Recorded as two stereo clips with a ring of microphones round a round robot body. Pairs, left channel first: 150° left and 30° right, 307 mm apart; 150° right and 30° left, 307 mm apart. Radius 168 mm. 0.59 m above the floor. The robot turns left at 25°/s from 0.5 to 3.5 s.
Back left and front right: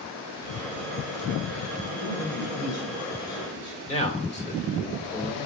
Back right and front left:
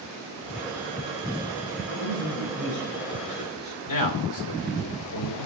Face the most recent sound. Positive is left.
turn(degrees=-140)